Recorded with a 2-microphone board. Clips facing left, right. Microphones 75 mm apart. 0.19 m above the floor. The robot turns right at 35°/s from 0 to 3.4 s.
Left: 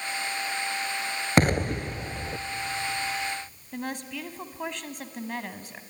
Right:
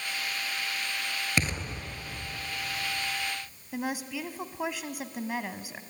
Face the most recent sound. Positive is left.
turn(degrees=-5)  # may be behind; listen again after turning